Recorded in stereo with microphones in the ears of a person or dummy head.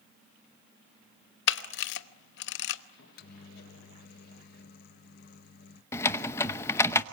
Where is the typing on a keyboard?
15° left (ahead or behind), 0.8 m.